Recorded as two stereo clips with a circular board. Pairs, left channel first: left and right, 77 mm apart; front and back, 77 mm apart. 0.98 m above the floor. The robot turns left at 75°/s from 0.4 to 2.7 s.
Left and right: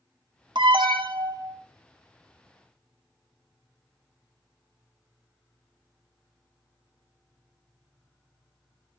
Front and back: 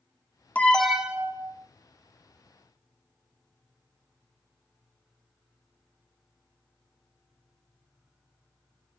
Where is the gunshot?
I don't hear a gunshot.